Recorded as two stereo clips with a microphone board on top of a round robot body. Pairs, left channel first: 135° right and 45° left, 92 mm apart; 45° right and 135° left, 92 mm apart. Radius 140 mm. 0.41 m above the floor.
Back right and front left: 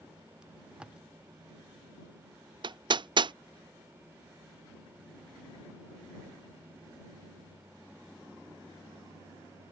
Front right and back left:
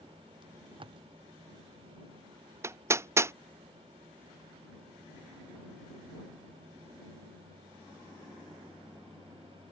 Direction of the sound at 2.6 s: 75° left.